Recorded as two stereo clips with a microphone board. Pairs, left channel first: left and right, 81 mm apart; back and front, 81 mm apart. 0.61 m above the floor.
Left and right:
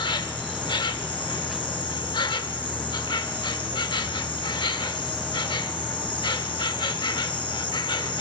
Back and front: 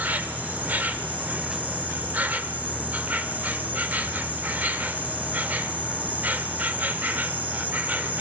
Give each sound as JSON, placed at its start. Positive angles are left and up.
{"t": 0.0, "sound": "an insect", "azimuth_deg": 70, "distance_m": 0.8}